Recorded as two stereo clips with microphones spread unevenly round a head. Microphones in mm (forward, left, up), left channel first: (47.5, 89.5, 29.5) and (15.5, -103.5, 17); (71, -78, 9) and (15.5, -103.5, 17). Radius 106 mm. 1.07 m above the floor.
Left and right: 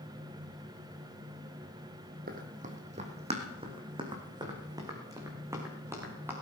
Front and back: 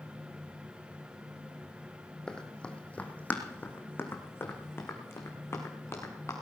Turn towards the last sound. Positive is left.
turn(degrees=-20)